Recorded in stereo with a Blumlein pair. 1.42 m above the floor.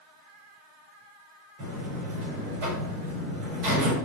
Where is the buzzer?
45° right, 4.5 m.